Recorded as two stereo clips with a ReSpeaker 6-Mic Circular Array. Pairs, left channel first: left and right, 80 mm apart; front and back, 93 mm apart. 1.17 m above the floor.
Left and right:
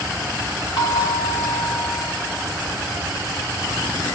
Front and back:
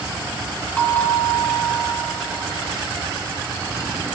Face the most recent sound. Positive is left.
turn(degrees=75)